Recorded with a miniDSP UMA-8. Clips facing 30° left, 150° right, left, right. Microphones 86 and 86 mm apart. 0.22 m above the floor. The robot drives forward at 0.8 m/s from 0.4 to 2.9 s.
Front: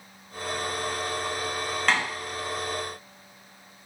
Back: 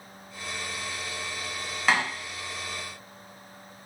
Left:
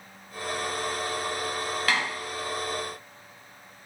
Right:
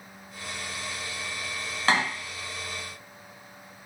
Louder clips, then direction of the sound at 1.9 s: Back 1 dB, right 4 dB; 70° right.